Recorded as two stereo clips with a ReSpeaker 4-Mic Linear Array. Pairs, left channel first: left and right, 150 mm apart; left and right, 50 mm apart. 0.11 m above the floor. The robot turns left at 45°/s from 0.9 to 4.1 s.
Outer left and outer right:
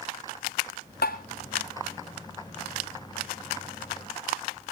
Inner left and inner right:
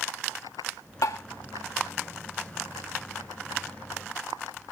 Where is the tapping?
75° left (ahead or behind), 1.8 m; by 1.2 s 65° left (ahead or behind), 1.8 m.